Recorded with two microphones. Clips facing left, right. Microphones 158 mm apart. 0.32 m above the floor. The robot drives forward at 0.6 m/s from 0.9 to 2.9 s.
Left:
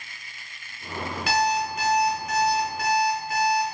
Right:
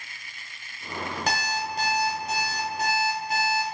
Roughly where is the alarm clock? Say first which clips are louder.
Left 7 dB; right.